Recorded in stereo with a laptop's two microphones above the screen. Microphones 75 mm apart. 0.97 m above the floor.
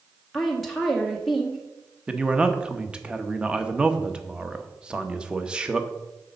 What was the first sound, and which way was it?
A woman speaking, centre (ahead or behind).